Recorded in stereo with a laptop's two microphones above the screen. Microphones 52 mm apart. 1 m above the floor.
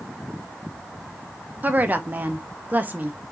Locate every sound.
1.6 s a woman speaking: 30° right (ahead or behind), 0.6 m